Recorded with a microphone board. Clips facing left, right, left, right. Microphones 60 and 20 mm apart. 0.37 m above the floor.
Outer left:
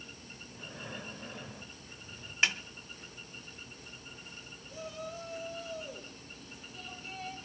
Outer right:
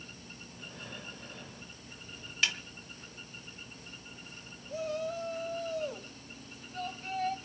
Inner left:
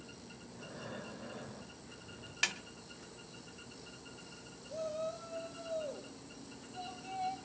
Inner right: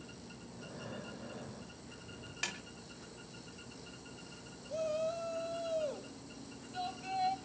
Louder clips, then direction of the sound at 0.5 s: Outer left 3 dB, even; 15° left (ahead or behind).